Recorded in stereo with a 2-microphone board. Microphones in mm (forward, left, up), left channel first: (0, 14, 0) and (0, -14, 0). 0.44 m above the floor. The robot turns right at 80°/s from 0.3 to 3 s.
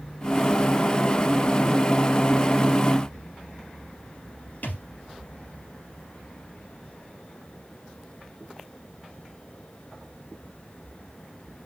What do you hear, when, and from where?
4.6 s a thud: 75° left (ahead or behind), 2.5 m